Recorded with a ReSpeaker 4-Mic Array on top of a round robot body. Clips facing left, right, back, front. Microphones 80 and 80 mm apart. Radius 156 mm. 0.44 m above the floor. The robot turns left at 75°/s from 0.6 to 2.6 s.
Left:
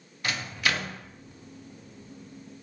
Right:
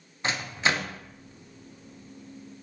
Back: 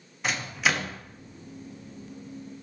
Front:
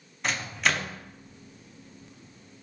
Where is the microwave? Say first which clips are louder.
Right 2 dB, back 1 dB; 95° right, 0.5 m; by 1.0 s 125° right, 0.5 m.